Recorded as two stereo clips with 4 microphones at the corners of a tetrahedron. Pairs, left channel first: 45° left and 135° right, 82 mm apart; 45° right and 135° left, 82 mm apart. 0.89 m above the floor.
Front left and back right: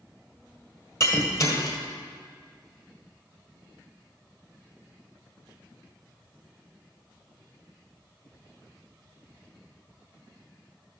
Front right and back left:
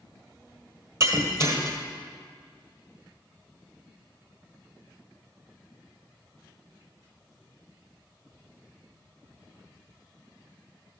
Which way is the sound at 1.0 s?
85° left.